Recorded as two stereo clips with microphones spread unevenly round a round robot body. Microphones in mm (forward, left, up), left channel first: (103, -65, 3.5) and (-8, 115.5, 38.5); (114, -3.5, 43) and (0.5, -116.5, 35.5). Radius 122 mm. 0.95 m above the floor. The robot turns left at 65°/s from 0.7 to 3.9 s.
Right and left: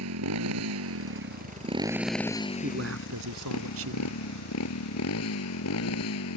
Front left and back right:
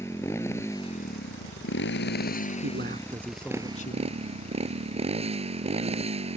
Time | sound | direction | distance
0.0 | a motorcycle | 125° left | ?
2.6 | a man speaking | straight behind | ?